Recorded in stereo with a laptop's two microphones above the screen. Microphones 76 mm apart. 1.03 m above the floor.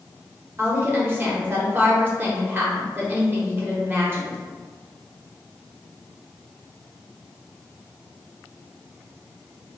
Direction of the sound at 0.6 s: 30° right (ahead or behind).